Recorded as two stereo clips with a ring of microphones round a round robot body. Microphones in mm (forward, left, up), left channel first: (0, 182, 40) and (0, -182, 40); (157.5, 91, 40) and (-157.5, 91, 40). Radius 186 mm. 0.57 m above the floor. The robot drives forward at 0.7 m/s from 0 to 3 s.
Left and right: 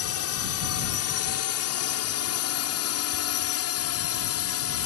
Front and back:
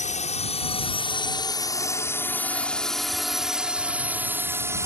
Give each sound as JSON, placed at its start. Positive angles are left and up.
{"t": 0.0, "sound": "a drone", "azimuth_deg": 60}